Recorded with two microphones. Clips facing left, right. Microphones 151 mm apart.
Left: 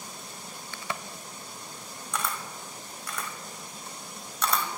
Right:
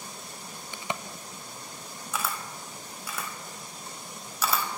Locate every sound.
0.7 s a crack: 20° right (ahead or behind), 0.6 m
2.1 s a camera shutter: 5° right (ahead or behind), 1.2 m